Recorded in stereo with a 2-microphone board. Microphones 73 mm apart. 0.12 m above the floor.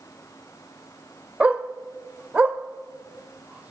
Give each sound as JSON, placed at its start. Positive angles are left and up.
{"t": 1.4, "sound": "a dog barking", "side_deg": -20, "distance_m": 1.1}